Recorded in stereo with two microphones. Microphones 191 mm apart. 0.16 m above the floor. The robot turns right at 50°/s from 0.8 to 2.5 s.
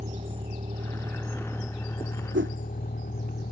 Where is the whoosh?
80° right; by 2.5 s 75° right (ahead or behind).